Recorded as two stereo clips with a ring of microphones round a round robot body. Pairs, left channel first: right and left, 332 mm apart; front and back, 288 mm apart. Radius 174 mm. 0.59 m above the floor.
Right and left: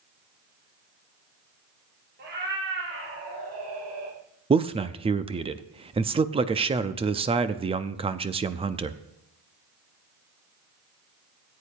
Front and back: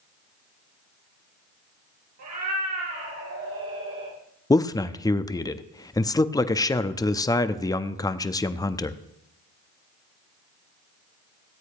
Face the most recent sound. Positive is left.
turn(degrees=55)